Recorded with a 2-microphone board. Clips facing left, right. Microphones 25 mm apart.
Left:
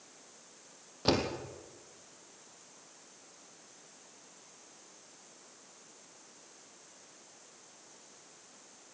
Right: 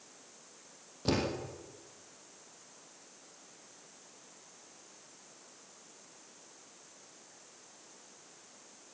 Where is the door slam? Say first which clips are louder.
Left 2 dB; 35° left (ahead or behind), 3.5 m.